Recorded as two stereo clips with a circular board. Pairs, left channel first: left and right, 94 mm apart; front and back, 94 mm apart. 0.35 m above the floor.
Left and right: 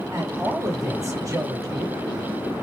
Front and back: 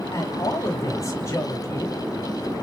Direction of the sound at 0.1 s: 45° right.